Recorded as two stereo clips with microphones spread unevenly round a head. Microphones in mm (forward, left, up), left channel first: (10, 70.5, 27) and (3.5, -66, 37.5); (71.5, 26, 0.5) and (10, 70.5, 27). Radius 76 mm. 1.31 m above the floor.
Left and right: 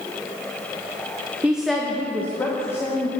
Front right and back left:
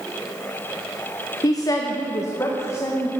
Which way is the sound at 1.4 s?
15° right.